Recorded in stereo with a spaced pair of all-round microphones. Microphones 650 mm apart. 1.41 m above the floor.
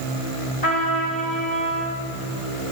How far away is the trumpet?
About 4.5 m.